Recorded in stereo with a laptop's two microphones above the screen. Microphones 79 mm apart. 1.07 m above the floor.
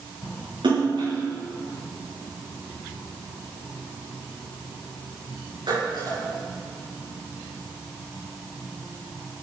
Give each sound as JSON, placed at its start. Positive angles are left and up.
{"t": 0.6, "sound": "a splash", "side_deg": -80, "distance_m": 6.5}